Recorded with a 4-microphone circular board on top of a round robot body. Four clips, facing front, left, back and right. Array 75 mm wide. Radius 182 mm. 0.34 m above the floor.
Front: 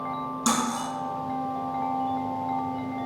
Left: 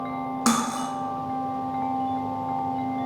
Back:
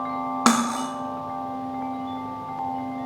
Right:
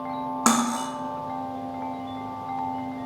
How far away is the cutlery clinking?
About 0.6 m.